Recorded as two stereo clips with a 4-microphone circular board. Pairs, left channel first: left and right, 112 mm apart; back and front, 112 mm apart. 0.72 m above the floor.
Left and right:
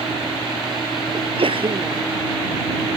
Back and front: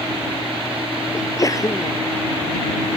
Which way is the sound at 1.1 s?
120° right.